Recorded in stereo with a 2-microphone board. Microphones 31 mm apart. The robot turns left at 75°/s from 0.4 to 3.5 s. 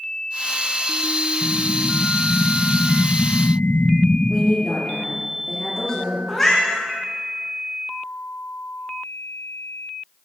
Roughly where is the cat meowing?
Centre.